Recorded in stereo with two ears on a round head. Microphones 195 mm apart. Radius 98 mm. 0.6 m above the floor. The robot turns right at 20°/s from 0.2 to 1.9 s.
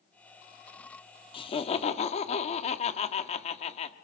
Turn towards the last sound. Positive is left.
turn(degrees=30)  # may be behind; listen again after turning